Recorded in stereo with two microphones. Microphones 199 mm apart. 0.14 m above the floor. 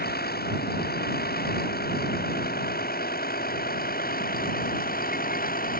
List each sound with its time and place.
0.0 s a vehicle: 50° left (ahead or behind); by 5.8 s 45° left (ahead or behind)